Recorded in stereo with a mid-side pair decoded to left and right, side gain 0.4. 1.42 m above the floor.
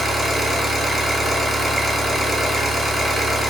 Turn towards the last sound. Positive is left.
turn(degrees=-20)